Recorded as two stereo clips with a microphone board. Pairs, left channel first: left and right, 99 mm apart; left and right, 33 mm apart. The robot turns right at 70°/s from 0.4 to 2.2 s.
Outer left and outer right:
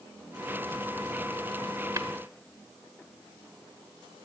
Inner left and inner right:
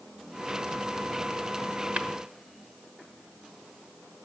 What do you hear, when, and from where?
2.0 s tapping: 40° right (ahead or behind), 1.1 m; by 2.1 s 35° right (ahead or behind), 1.1 m